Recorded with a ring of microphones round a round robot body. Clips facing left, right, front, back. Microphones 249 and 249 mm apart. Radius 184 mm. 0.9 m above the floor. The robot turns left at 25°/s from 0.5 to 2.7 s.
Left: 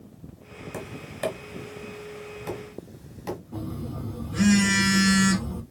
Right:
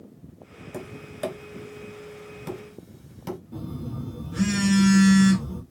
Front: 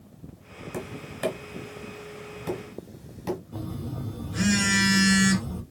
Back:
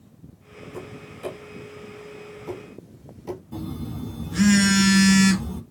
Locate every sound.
0.7 s tapping: straight ahead, 2.5 m; by 3.4 s 50° right, 2.5 m
3.5 s a phone buzzing: 165° right, 1.1 m